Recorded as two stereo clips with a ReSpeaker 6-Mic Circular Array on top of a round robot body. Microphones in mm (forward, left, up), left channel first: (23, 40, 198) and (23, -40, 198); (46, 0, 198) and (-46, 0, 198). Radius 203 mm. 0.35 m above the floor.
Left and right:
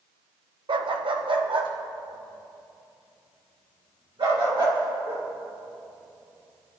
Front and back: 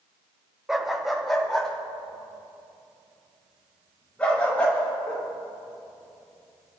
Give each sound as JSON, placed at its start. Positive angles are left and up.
{"t": 0.7, "sound": "a dog barking", "azimuth_deg": -95, "distance_m": 0.9}